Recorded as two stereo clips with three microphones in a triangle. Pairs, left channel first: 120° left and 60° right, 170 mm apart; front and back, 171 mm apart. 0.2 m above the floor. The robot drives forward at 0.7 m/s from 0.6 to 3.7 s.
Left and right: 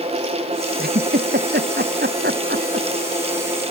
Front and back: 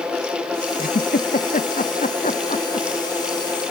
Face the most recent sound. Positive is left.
turn(degrees=-55)